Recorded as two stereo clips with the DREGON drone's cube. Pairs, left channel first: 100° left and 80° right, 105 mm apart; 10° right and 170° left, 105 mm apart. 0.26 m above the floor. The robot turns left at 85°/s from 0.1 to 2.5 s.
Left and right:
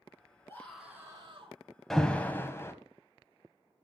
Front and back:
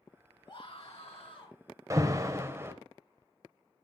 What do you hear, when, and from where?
0.5 s a scream: 40° left, 3 m; by 1.6 s 55° right, 3 m
1.9 s an alarm: 175° right, 1.1 m; by 2.7 s 135° left, 1.1 m